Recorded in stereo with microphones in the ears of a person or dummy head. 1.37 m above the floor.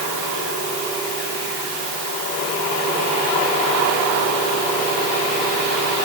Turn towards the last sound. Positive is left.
No sound to turn to.